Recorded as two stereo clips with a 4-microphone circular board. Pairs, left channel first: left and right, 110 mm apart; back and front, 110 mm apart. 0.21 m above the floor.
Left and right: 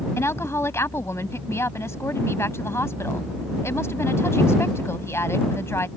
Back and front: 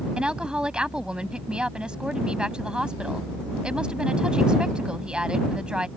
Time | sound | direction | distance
0.2 | a woman speaking | 70° left | ?